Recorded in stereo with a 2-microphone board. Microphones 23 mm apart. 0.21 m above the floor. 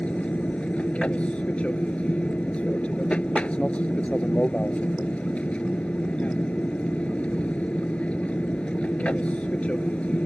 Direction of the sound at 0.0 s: 60° left (ahead or behind).